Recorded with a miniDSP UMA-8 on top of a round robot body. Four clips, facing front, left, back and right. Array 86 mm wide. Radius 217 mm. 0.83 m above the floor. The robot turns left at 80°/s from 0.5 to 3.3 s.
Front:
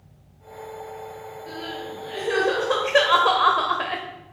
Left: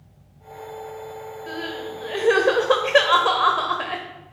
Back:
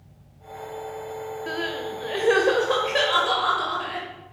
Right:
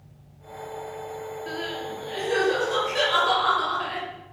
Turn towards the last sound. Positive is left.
turn(degrees=40)